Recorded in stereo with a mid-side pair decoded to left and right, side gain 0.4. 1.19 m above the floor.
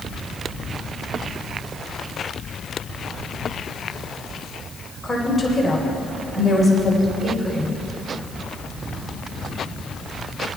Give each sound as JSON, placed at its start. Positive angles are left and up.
{"t": 5.0, "sound": "a woman speaking", "azimuth_deg": 0, "distance_m": 4.5}